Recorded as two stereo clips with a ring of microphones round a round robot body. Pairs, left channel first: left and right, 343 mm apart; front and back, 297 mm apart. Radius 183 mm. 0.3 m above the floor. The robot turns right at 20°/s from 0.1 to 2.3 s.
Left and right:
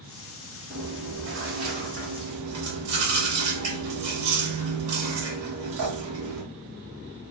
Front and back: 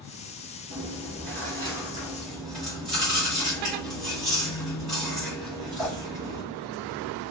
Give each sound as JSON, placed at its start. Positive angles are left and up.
{"t": 0.7, "sound": "chewing", "azimuth_deg": -120, "distance_m": 2.5}